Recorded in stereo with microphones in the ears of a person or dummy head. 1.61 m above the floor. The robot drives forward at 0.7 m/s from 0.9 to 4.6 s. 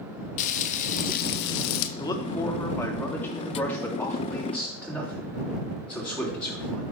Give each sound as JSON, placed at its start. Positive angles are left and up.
{"t": 0.4, "sound": "frying", "side_deg": 40, "distance_m": 0.9}
{"t": 2.0, "sound": "a man speaking", "side_deg": 20, "distance_m": 1.1}